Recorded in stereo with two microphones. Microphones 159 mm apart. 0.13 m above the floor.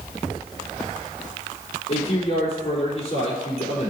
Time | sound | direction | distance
1.9 | a man speaking | 50° left (ahead or behind) | 4 m